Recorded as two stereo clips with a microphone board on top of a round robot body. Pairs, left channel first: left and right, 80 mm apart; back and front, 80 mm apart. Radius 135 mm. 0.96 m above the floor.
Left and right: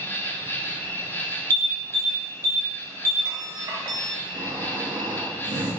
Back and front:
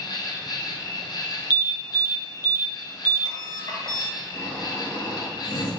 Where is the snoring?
120° right, 0.6 m.